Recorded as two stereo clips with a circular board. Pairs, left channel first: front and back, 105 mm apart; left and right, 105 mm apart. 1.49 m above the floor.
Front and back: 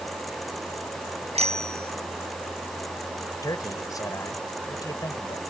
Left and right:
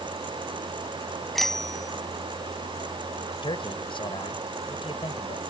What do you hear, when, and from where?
1.4 s a bicycle bell: 175° left
3.4 s a man speaking: 55° left